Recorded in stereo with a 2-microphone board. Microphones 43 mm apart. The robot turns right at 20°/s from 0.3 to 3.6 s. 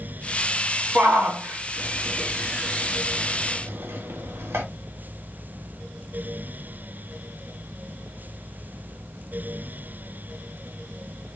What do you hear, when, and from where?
0.9 s a shout: 40° right (ahead or behind), 1.0 m; by 4.6 s 75° right (ahead or behind), 1.0 m